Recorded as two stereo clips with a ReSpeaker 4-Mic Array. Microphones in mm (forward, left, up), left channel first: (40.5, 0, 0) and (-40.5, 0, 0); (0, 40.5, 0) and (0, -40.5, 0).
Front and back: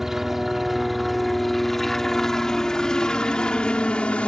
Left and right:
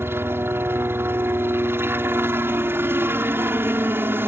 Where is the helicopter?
100° right; by 4.3 s 60° right.